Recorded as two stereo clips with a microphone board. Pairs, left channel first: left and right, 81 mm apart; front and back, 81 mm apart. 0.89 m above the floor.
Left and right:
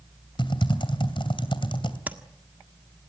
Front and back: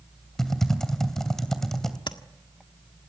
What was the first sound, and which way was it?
Typing on a keyboard, 85° left.